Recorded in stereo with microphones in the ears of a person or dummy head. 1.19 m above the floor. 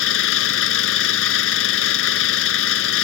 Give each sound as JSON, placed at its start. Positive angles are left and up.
{"t": 0.0, "sound": "an engine running", "side_deg": 75}